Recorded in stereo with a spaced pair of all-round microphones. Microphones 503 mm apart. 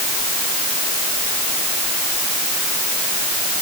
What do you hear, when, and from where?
Only background noise.